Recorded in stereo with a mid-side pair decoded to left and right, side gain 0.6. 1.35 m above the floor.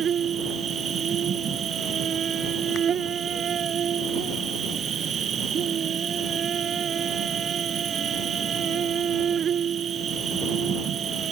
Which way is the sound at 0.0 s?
40° right.